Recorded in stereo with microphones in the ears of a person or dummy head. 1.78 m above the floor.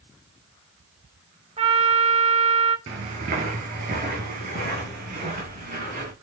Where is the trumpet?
25° right (ahead or behind), 1.4 m.